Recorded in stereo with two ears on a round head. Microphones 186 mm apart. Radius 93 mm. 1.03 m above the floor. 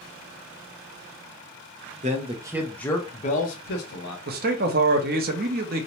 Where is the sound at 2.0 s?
35° right (ahead or behind), 0.7 m; by 4.2 s 60° left (ahead or behind), 1.1 m.